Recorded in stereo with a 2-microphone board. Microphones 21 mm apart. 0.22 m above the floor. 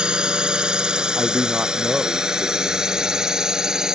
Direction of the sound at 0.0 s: 40° right (ahead or behind).